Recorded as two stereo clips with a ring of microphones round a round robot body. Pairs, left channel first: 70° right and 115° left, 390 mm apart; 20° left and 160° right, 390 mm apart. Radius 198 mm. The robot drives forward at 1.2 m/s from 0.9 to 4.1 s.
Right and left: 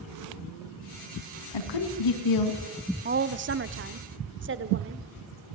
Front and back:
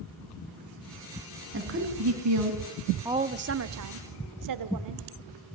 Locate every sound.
1.5 s a woman speaking: 95° right, 4.5 m; by 2.6 s 110° right, 4.5 m
3.0 s a woman speaking: 130° left, 0.9 m; by 5.1 s 170° left, 1.7 m